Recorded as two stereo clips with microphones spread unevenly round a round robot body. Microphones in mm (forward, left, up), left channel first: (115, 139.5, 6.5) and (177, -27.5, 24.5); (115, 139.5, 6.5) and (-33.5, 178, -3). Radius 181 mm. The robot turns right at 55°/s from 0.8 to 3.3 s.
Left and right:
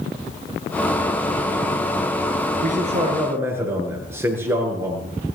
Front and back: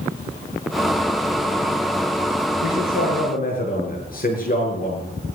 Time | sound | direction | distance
2.6 | a man speaking | 30° right | 7 m